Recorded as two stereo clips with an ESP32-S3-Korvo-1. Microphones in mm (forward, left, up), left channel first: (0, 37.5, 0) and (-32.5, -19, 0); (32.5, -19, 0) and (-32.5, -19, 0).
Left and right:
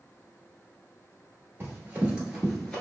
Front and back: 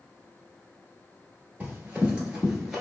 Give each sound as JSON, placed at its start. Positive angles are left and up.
{"t": 1.6, "sound": "running footsteps", "azimuth_deg": -135, "distance_m": 1.2}